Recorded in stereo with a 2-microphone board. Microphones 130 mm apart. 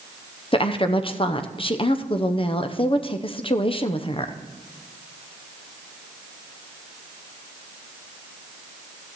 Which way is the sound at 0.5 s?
40° left (ahead or behind).